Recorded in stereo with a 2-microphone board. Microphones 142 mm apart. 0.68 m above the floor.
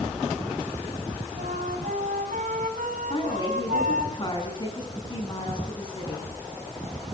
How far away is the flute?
About 4 m.